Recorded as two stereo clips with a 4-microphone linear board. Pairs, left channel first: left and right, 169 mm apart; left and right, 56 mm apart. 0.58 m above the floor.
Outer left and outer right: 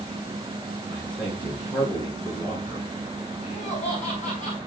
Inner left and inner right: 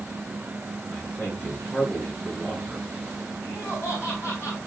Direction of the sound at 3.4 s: 45° left (ahead or behind).